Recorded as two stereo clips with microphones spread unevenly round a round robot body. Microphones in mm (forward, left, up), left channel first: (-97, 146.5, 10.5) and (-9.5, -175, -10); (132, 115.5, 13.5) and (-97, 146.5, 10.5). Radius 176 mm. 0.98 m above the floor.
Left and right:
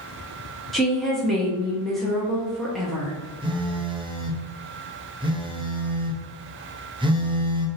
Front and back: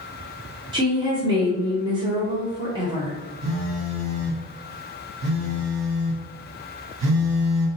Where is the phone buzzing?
150° right, 0.7 m.